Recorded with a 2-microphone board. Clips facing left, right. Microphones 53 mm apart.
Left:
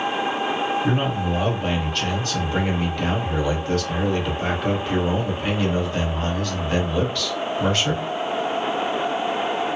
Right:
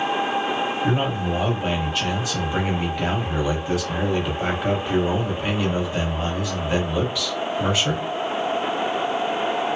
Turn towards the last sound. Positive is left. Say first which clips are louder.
# even
turn(degrees=-10)  # may be behind; listen again after turning